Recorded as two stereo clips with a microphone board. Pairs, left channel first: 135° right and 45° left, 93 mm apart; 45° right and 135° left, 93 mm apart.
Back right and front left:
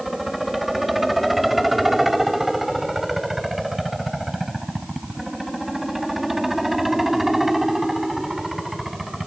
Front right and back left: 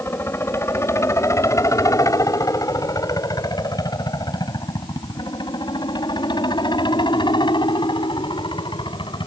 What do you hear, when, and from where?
0.0 s a helicopter: 40° right